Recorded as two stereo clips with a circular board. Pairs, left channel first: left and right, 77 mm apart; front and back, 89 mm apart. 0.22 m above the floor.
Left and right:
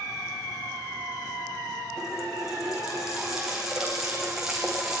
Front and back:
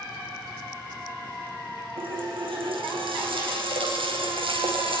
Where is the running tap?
175° right, 9.5 m.